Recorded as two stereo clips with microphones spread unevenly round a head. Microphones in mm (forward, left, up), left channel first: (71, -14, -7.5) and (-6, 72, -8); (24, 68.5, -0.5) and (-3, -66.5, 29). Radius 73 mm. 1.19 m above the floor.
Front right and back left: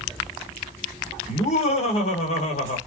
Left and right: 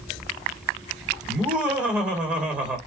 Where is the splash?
I don't hear a splash.